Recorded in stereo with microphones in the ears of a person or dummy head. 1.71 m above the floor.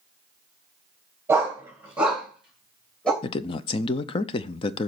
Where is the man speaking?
30° left (ahead or behind), 0.6 m.